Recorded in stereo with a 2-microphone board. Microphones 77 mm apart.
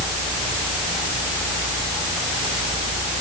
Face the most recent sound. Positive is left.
No sound to turn to.